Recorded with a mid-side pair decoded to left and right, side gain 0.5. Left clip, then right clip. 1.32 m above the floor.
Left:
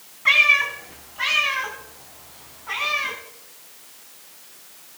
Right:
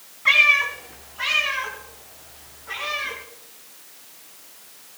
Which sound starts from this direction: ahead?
A cat meowing, at 0.2 s.